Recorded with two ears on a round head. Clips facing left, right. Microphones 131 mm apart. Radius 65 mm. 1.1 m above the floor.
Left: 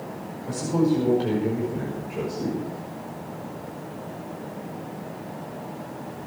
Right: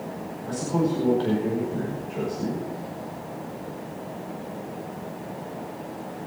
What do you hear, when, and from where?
0.5 s a man speaking: 10° left (ahead or behind), 5.5 m